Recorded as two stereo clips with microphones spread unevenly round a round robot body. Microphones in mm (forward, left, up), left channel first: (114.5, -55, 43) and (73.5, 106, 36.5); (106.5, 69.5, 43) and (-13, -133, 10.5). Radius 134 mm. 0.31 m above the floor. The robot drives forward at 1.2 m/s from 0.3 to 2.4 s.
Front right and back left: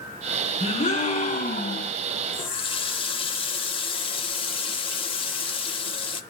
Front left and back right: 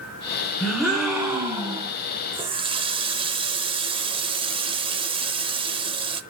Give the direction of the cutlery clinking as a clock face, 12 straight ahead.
No cutlery clinking in this recording.